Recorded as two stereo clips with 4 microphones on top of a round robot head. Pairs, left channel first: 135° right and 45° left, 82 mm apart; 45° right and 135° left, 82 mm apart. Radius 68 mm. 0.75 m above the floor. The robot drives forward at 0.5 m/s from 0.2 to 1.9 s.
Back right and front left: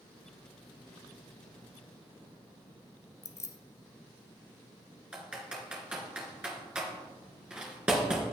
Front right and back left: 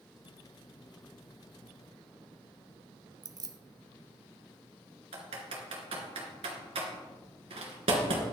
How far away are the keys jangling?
About 0.8 m.